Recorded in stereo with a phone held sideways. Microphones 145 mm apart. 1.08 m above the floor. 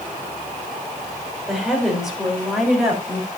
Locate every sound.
1.5 s a woman speaking: centre (ahead or behind), 4 m; by 3.3 s 5° right (ahead or behind), 5 m